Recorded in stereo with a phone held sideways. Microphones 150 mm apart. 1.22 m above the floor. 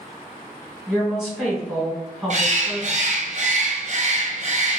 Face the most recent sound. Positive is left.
turn(degrees=-50)  # may be behind; listen again after turning